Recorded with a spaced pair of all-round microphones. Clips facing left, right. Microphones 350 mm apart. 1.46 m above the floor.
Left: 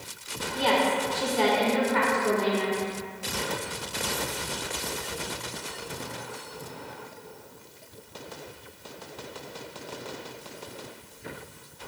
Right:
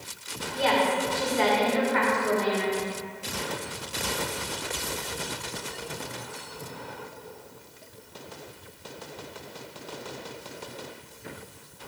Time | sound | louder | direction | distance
0.5 | a woman speaking | even | 50° left (ahead or behind) | 2 m